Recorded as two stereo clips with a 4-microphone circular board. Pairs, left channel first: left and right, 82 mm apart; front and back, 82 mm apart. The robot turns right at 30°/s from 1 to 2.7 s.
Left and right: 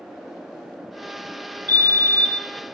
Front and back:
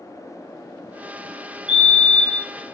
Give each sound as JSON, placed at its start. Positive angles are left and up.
{"t": 1.7, "sound": "a fire alarm", "azimuth_deg": -100, "distance_m": 4.0}